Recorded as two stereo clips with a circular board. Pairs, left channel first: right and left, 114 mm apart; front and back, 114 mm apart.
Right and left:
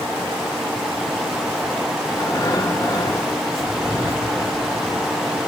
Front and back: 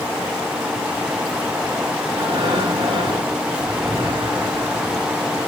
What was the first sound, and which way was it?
Breathing, 145° right.